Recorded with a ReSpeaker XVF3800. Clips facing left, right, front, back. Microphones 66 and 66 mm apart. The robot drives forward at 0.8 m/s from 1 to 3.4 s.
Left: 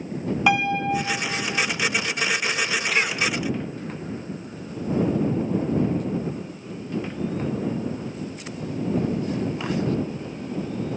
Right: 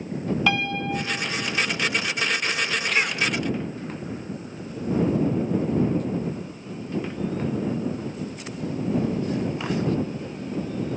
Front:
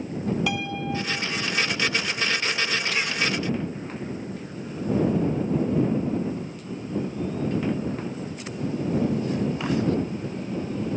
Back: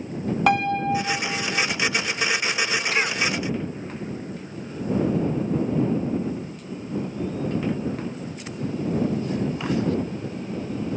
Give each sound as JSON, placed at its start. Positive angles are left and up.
{"t": 0.5, "sound": "a piano", "azimuth_deg": 160, "distance_m": 0.5}
{"t": 2.9, "sound": "a cough", "azimuth_deg": 180, "distance_m": 1.2}